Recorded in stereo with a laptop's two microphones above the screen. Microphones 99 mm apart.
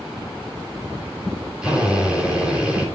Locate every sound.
1.6 s a drill: 10° right (ahead or behind), 4 m